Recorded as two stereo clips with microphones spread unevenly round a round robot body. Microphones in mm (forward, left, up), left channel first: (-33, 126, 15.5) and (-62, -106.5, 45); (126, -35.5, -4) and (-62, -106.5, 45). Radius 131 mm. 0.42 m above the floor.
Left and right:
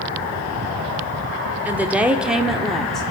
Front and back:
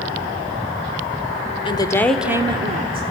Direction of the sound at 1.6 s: 10° right.